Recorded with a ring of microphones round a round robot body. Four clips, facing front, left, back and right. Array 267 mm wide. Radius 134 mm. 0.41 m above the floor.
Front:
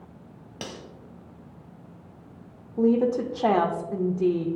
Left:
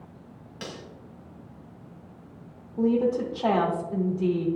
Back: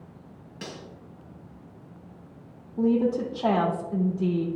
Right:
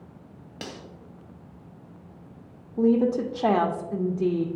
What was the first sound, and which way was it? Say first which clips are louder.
Cutlery clinking: even, front 1 dB; 40° right.